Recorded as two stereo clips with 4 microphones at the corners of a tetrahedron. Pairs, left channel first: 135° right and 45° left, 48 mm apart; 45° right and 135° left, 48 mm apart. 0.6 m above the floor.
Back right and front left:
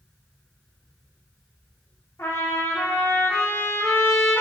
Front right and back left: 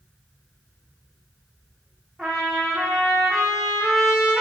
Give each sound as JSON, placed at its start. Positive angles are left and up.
{"t": 2.2, "sound": "a trumpet", "azimuth_deg": -140, "distance_m": 7.5}